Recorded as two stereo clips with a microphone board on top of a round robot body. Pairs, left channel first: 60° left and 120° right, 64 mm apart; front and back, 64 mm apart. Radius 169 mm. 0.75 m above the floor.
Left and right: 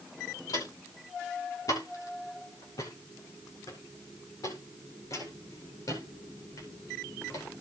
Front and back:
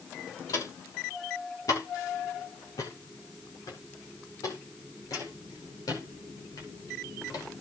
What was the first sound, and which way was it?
Footsteps, 30° left.